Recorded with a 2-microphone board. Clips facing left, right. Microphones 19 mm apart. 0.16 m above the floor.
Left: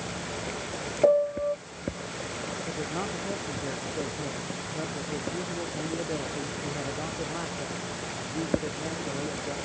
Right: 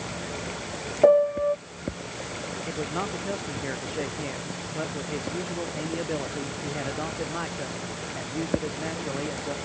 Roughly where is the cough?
No cough in this recording.